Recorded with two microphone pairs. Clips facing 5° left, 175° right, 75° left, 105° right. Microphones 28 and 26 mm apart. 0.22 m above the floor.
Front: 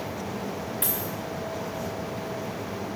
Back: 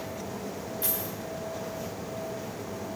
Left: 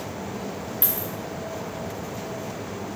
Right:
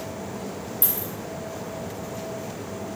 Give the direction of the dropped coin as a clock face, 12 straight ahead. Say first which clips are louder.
Front 3 dB, left 1 dB; 11 o'clock.